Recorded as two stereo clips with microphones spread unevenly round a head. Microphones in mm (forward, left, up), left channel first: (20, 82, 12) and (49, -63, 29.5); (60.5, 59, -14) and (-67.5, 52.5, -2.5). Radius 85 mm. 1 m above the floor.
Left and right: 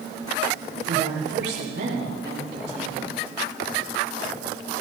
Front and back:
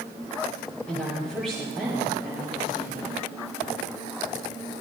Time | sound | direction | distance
0.9 | a woman speaking | 85° right | 5.5 m